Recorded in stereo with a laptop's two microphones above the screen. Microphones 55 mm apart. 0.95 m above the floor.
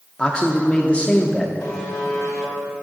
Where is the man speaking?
20° left (ahead or behind), 0.6 m.